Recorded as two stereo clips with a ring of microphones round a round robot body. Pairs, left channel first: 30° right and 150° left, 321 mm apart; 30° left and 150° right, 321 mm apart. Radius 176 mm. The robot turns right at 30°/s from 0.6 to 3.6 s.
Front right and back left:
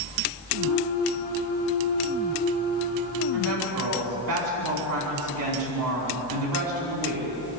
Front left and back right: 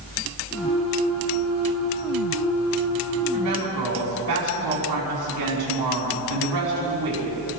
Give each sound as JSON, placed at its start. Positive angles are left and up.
{"t": 3.3, "sound": "a woman speaking", "azimuth_deg": 170, "distance_m": 5.0}